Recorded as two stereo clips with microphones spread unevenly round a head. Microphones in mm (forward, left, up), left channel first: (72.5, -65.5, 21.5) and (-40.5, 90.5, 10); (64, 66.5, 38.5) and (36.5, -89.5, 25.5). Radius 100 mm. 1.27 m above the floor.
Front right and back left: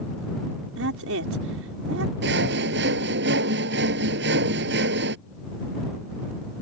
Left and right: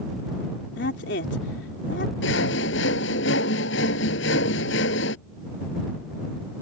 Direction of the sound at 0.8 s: 110° left.